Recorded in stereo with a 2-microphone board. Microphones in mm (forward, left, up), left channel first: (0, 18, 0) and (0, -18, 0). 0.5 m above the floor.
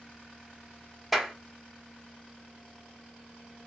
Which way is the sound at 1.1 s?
Centre (ahead or behind).